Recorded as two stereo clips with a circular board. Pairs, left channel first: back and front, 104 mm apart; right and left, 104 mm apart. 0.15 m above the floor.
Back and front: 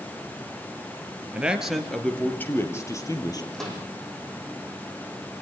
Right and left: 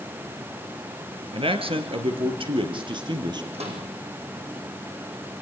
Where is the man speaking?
75° left, 2.5 m; by 3.4 s 130° left, 4 m.